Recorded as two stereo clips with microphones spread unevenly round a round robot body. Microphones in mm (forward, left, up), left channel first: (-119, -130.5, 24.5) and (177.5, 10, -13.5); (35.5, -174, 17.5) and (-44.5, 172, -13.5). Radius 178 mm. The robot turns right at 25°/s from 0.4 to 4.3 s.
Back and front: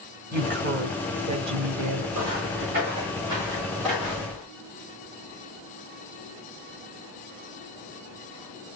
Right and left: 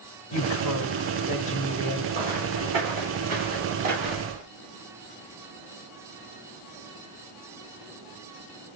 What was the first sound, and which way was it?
A woman speaking, 35° right.